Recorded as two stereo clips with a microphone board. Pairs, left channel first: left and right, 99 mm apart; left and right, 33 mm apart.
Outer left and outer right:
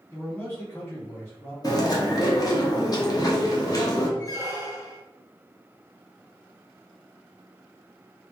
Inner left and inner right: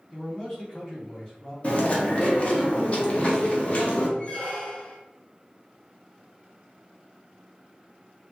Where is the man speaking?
30° left (ahead or behind), 1.5 m.